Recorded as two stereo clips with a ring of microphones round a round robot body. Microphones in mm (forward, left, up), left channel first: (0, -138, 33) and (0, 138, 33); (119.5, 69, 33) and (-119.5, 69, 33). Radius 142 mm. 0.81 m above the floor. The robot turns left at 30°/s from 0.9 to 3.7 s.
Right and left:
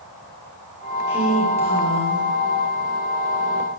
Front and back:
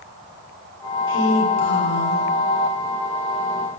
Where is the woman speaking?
35° left, 7 m; by 2.2 s straight ahead, 7 m.